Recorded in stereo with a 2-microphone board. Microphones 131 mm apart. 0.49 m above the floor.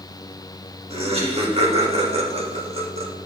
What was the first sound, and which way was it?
Laughter, 50° right (ahead or behind).